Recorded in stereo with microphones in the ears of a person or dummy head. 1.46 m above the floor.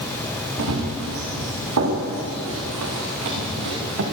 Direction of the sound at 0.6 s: 80° right.